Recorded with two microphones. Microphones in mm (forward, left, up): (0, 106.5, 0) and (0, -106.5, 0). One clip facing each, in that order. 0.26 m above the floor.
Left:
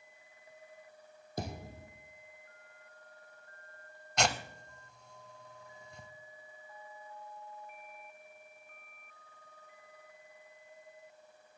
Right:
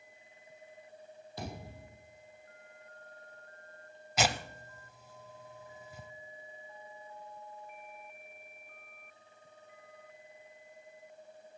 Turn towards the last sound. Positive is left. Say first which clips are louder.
# right 1 dB
turn(degrees=-5)  # may be behind; listen again after turning